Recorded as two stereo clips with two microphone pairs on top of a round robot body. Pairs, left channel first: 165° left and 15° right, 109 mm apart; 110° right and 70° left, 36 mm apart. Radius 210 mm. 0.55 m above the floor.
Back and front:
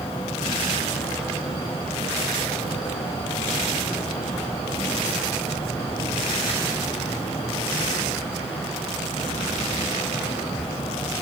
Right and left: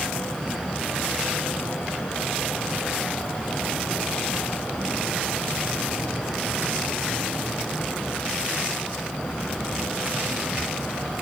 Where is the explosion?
No explosion in this recording.